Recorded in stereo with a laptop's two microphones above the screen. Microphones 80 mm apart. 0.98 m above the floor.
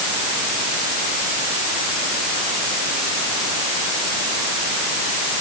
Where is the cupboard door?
No cupboard door in this recording.